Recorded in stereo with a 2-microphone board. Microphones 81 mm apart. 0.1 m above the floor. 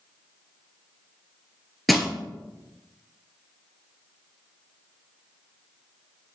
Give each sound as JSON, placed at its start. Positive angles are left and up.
{"t": 1.9, "sound": "crushing", "side_deg": 0, "distance_m": 1.3}